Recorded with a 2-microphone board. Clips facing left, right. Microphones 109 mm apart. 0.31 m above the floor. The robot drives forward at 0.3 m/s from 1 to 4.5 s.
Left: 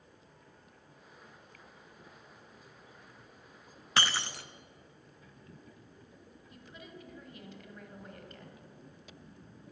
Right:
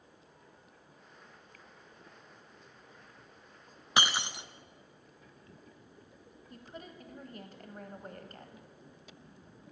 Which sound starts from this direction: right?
A woman speaking, at 6.5 s.